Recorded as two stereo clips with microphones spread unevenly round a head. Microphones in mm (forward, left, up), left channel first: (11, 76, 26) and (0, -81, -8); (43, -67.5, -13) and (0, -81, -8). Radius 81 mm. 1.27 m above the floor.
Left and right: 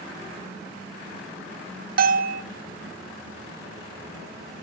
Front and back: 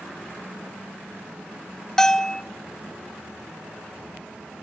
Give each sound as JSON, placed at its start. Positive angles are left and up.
{"t": 2.0, "sound": "a bell", "azimuth_deg": -60, "distance_m": 0.9}